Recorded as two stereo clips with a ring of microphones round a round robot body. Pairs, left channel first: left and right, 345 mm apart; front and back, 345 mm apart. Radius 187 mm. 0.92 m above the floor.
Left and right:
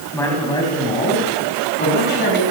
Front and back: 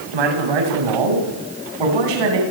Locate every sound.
0.1 s a man speaking: 175° left, 7.5 m; by 2.4 s 155° left, 9 m